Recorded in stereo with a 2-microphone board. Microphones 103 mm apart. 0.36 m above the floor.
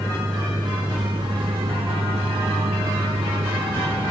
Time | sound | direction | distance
0.0 | a vehicle | 35° right (ahead or behind) | ?